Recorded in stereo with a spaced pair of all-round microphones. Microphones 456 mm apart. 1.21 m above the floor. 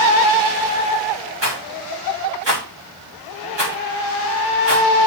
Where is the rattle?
65° right (ahead or behind), 2 m.